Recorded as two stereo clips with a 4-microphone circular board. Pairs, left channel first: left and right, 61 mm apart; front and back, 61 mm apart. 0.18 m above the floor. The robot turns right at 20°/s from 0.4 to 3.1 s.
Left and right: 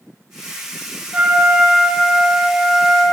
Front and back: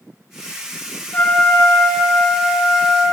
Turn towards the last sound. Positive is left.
turn(degrees=-5)